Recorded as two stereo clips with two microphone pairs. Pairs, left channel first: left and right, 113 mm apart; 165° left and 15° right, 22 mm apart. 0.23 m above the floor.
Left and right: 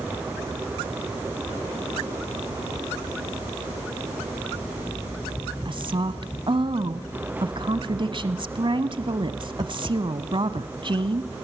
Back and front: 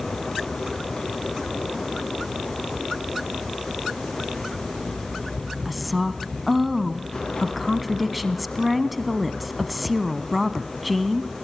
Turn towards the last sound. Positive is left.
turn(degrees=-100)